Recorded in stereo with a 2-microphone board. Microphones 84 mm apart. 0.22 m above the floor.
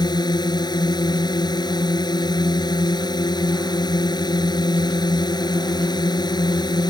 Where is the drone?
60° left (ahead or behind).